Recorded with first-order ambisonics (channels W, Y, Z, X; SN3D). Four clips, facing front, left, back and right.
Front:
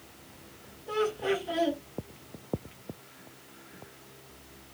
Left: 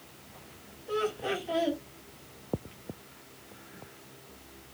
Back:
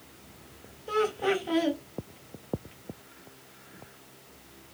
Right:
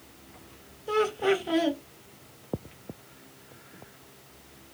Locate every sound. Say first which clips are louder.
0.9 s laughter: right 6 dB, back 2 dB; 120° right, 1.1 m